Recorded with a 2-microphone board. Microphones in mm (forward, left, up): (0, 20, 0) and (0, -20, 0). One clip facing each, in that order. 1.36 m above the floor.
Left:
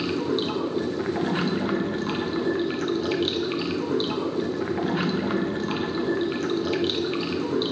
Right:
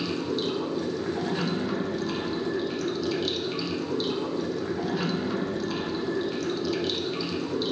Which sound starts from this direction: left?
Running water, at 0.0 s.